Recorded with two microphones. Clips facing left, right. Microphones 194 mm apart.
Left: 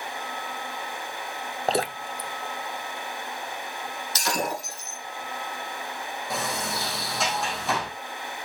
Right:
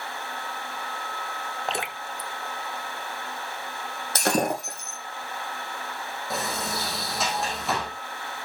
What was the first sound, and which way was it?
Dripping, 35° left (ahead or behind).